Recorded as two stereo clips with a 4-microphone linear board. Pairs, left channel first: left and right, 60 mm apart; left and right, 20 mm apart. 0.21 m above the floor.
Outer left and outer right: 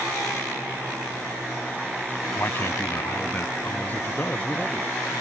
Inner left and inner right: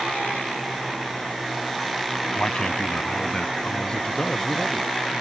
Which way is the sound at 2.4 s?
35° left (ahead or behind).